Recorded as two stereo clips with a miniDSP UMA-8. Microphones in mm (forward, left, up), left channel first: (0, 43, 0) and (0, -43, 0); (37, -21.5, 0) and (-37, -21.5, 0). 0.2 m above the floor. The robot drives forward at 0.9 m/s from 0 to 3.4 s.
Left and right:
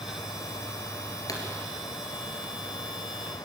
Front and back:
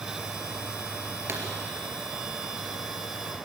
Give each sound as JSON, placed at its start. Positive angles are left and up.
{"t": 1.3, "sound": "a pop", "azimuth_deg": 125, "distance_m": 3.5}